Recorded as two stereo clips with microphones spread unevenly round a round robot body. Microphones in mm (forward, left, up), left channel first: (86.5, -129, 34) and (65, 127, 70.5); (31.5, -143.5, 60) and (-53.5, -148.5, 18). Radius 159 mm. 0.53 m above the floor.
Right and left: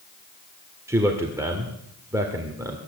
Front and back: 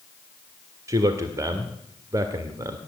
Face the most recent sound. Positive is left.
turn(degrees=180)